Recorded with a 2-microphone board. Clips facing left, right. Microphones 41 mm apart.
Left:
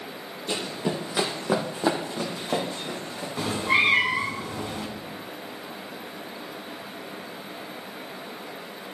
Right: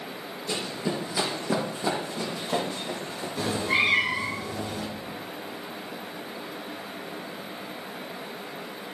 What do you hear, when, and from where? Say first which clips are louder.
0.5 s running footsteps: left 2 dB; 50° left (ahead or behind), 1.9 m; by 4.3 s 45° left (ahead or behind), 4 m
3.4 s a cat meowing: left 2 dB; 40° left (ahead or behind), 1.7 m